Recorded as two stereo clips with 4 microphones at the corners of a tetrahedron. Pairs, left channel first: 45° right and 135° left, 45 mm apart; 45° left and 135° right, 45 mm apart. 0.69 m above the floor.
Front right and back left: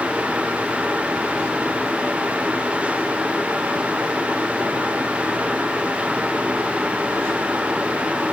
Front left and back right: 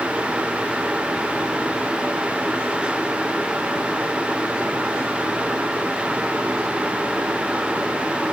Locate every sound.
Only background noise.